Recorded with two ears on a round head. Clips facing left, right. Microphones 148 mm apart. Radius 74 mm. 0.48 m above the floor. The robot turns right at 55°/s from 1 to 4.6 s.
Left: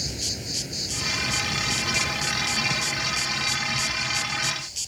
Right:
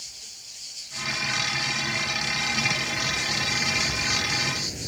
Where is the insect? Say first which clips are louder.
Left 22 dB; 85° left; by 4.9 s 80° right.